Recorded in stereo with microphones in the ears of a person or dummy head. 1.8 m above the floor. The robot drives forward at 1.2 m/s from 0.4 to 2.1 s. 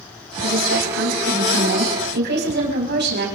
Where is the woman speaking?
75° right (ahead or behind), 4 m; by 3.3 s 55° right (ahead or behind), 4.5 m.